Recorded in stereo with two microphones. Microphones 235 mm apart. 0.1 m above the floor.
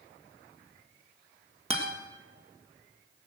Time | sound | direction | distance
1.7 | a guitar | 25° right (ahead or behind) | 2 m